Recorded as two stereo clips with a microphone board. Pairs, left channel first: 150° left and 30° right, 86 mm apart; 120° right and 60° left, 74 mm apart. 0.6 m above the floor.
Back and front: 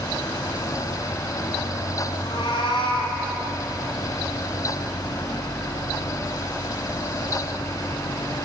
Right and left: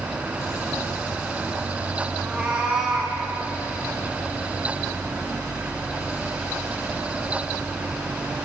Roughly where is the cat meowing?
Behind left.